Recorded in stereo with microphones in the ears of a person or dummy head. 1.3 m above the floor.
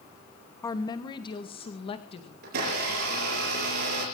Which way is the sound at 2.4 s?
70° right (ahead or behind).